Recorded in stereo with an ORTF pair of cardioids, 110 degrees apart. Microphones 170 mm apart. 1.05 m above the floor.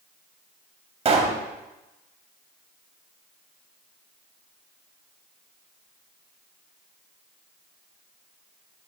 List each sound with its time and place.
1.1 s a pop: 40° right, 2.5 m